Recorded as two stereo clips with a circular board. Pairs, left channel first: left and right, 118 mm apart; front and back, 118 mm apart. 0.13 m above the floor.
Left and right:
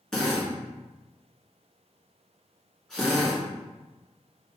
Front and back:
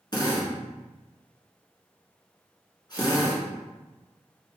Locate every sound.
0.1 s a drill: 5° left, 1.5 m